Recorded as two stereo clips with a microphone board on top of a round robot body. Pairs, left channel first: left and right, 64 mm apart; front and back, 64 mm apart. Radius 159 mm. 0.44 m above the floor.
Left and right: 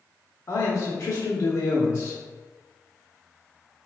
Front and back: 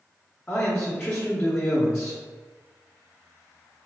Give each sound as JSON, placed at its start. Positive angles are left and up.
{"t": 0.5, "sound": "a man speaking", "azimuth_deg": 60, "distance_m": 1.1}